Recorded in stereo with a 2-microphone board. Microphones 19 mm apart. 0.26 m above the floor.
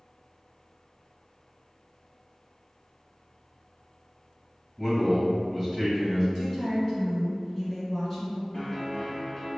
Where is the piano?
5° left (ahead or behind), 1.2 m.